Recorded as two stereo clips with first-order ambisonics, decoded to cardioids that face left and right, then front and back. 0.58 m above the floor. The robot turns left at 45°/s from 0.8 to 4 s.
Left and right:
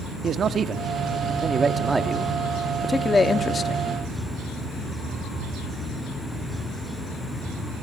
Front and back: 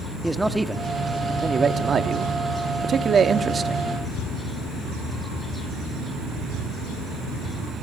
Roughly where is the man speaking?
Right.